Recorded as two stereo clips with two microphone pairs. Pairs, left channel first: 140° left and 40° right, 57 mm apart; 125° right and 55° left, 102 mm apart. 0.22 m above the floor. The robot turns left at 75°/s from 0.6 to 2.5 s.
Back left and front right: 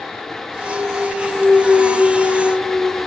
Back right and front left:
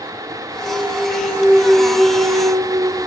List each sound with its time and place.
0.6 s a clunk: 125° right, 4 m; by 3.0 s 95° left, 4 m